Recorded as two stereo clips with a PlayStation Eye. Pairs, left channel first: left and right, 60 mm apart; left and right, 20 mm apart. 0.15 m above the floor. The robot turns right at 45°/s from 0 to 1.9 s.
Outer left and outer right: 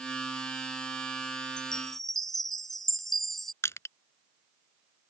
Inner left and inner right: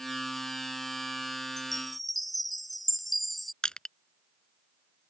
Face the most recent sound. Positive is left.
turn(degrees=50)  # may be behind; listen again after turning